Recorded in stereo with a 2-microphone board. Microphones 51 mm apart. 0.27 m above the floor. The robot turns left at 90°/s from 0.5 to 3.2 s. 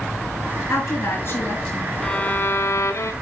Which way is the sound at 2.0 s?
165° left.